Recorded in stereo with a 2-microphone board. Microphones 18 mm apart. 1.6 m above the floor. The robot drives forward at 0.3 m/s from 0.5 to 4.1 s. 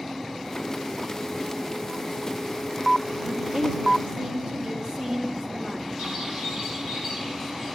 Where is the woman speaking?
50° right (ahead or behind), 2.5 m; by 6.1 s 45° right (ahead or behind), 2.5 m.